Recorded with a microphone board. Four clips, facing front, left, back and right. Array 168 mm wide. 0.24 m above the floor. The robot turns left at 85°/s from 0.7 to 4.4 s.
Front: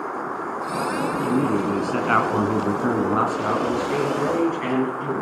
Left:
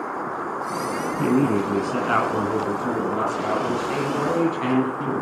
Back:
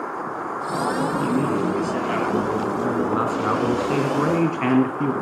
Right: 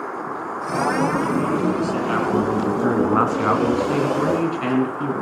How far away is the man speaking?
About 2 m.